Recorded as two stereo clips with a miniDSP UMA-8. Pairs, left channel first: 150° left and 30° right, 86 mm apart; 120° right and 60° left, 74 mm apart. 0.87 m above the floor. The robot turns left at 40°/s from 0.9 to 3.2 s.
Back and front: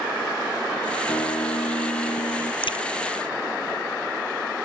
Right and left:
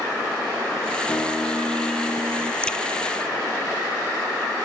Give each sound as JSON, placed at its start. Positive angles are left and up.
{"t": 1.1, "sound": "a guitar", "azimuth_deg": -175}
{"t": 2.6, "sound": "a crack", "azimuth_deg": 165}